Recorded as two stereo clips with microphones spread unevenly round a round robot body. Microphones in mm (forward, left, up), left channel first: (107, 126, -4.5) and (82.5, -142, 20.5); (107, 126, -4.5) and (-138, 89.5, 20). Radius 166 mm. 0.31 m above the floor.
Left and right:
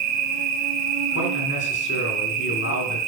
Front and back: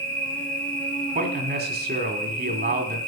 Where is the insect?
75° right, 2.5 m.